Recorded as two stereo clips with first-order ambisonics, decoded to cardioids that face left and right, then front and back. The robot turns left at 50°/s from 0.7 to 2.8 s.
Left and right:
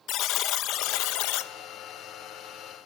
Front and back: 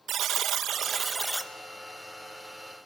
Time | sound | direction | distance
0.1 | a buzzer | 125° left | 0.9 m